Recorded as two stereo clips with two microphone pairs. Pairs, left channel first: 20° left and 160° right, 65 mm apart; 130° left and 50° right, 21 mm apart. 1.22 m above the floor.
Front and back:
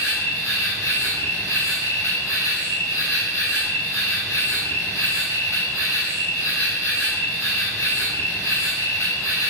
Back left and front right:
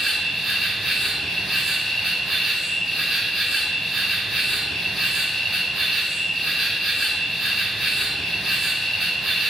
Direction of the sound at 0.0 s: 20° left.